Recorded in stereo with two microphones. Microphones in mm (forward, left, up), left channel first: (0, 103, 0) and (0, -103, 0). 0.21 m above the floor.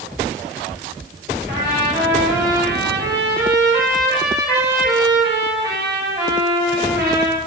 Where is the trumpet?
50° right (ahead or behind), 4.5 m.